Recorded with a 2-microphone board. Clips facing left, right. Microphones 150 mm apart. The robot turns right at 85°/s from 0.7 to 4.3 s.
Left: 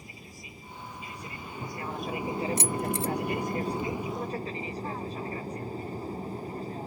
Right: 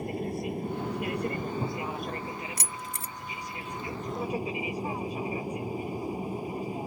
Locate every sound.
0.0 s an aircraft: 115° right; by 6.9 s 165° right
2.6 s keys jangling: 25° left (ahead or behind); by 3.1 s 30° left (ahead or behind)